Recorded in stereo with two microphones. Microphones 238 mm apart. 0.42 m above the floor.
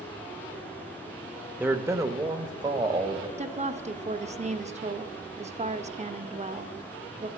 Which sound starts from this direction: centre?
A man speaking, at 1.6 s.